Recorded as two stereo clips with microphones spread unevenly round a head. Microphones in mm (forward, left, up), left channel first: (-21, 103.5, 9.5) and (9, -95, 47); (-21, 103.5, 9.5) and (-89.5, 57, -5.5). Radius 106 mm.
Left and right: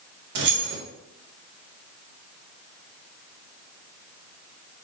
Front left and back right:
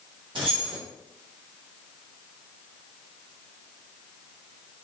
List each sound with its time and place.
0.3 s keys jangling: 100° right, 0.7 m